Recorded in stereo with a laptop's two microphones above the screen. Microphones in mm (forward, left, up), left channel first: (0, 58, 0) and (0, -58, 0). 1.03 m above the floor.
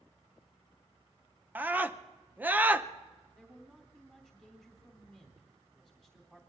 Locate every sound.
1.6 s a scream: 15° right (ahead or behind), 0.7 m
3.4 s a man speaking: 10° right (ahead or behind), 3.5 m